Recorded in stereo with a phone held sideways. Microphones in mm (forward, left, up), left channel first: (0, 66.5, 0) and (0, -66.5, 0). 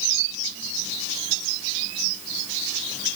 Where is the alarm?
No alarm in this recording.